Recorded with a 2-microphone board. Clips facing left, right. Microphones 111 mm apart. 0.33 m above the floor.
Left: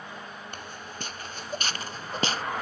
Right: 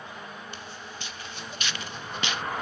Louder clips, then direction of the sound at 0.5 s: Left 1 dB; 50° left (ahead or behind).